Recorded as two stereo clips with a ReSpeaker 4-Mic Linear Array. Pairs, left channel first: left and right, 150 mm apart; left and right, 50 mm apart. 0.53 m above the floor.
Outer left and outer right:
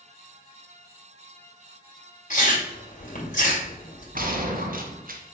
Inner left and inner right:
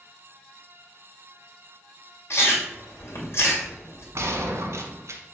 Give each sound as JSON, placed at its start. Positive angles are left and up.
{"t": 2.3, "sound": "chewing", "side_deg": 55, "distance_m": 2.5}
{"t": 4.2, "sound": "a gunshot", "side_deg": -65, "distance_m": 1.1}